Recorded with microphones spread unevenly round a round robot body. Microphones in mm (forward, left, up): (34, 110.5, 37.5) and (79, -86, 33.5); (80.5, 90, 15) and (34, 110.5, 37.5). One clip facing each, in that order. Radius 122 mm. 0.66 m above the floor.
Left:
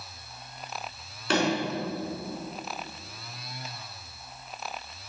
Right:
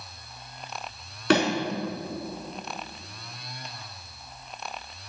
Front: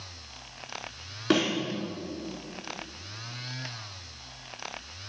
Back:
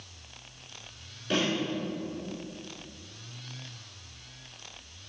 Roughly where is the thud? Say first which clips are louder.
Right 4 dB, front 4 dB; ahead right.